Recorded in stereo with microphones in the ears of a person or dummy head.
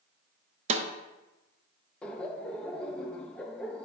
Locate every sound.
0.7 s a snare drum: 40° right (ahead or behind), 0.9 m
2.0 s laughter: 5° left (ahead or behind), 0.5 m